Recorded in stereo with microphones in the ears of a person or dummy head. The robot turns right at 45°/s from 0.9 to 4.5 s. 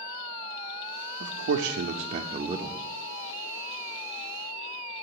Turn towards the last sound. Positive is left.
turn(degrees=55)